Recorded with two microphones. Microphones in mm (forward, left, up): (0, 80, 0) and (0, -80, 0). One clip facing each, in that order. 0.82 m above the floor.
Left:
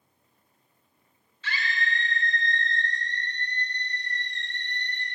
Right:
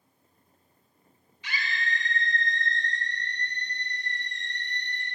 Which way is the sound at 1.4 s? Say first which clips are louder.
Left 2 dB; 15° right (ahead or behind).